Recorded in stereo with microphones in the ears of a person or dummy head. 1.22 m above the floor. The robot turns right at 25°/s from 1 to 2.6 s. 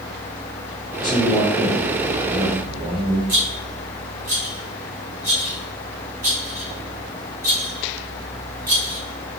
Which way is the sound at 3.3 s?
15° right (ahead or behind).